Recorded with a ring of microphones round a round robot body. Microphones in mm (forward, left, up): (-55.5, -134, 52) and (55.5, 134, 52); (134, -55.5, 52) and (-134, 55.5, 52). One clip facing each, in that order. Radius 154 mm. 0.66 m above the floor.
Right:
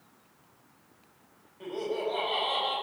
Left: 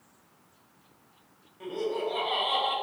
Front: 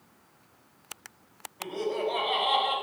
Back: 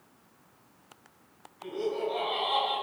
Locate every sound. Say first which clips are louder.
1.6 s laughter: left 1 dB, front 1 dB; 10° right, 4.5 m